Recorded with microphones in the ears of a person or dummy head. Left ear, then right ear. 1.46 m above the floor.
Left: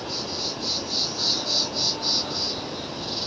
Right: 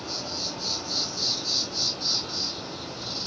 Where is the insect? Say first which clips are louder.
Left 2 dB; 40° right (ahead or behind), 8 m.